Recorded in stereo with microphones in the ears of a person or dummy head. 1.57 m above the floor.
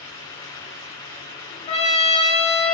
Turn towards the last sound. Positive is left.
turn(degrees=30)  # may be behind; listen again after turning